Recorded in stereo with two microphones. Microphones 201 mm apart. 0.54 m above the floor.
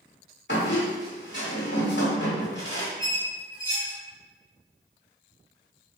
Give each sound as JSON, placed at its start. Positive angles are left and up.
{"t": 0.5, "sound": "a squeak", "side_deg": 65, "distance_m": 1.6}
{"t": 3.0, "sound": "a squeak", "side_deg": 80, "distance_m": 1.3}